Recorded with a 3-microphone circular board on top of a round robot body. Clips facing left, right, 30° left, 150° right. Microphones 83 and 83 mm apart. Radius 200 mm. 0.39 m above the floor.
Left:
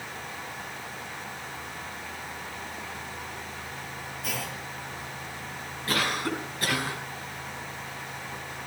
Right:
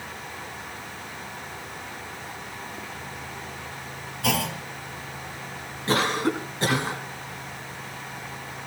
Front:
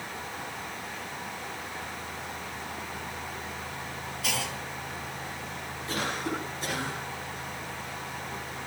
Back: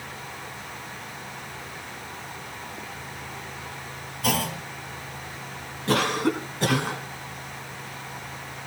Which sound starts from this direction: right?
A clunk, at 4.2 s.